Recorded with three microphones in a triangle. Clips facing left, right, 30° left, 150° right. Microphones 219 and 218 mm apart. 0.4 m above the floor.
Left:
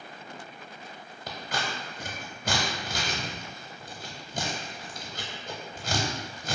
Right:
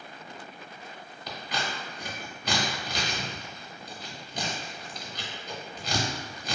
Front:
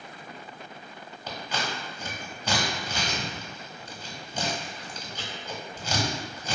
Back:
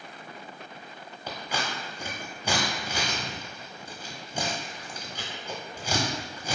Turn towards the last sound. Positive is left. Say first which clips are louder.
# left 1 dB, even
turn(degrees=135)